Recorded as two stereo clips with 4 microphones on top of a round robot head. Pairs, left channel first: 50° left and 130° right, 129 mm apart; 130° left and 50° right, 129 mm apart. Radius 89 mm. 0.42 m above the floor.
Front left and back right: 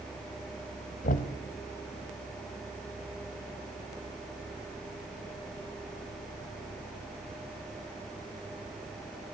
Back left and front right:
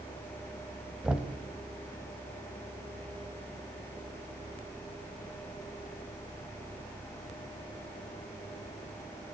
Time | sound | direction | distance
1.0 | knocking | 35° left | 1.9 m